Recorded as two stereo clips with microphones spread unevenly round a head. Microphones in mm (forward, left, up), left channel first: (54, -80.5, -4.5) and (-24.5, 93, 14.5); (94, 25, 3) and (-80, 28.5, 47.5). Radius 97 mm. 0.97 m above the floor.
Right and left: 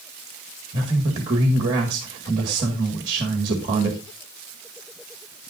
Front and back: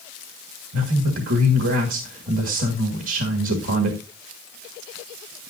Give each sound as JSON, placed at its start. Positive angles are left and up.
{"t": 0.7, "sound": "a man speaking", "azimuth_deg": 180, "distance_m": 1.8}